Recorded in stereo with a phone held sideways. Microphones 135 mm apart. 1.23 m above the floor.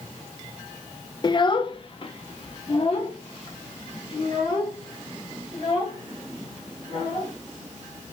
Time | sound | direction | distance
1.2 | a child speaking | 35° left (ahead or behind) | 0.6 m